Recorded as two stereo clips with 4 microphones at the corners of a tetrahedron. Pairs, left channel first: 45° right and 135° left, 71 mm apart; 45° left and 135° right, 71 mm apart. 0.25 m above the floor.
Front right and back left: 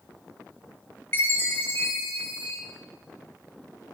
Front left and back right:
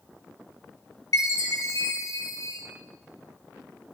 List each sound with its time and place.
1.1 s a chime: 15° left, 3.5 m